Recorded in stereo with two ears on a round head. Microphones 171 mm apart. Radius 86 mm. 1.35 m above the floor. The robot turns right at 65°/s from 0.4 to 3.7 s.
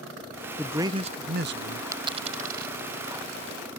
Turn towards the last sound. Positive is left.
turn(degrees=-40)  # may be behind; listen again after turning